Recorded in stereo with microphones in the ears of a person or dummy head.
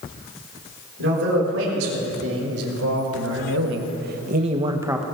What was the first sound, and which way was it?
A man speaking, 70° right (ahead or behind).